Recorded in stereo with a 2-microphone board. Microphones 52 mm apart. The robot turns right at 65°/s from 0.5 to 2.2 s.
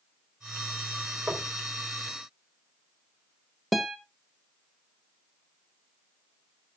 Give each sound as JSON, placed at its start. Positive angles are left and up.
{"t": 1.3, "sound": "knocking", "side_deg": -35, "distance_m": 3.5}
{"t": 3.7, "sound": "a guitar", "side_deg": 0, "distance_m": 1.2}